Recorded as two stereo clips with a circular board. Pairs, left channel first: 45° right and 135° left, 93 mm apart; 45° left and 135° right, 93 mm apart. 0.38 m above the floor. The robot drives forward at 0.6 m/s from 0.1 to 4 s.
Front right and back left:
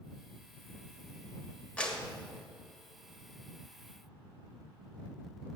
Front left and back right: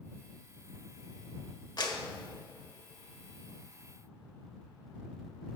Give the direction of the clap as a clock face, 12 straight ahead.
11 o'clock.